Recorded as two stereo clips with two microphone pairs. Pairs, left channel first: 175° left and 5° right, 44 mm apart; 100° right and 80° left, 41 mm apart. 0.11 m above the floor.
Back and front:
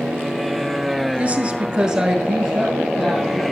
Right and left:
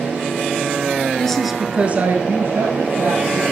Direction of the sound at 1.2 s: 45° right.